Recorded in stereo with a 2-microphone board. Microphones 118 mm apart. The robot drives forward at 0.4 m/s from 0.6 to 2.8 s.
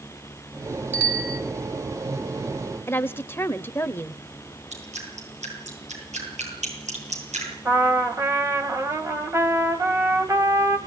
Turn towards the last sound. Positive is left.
turn(degrees=-25)  # may be behind; listen again after turning